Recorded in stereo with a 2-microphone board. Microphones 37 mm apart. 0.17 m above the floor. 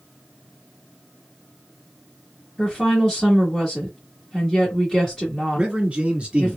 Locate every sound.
2.6 s a woman speaking: 15° left (ahead or behind), 1.5 m
5.5 s a man speaking: 25° right (ahead or behind), 1.2 m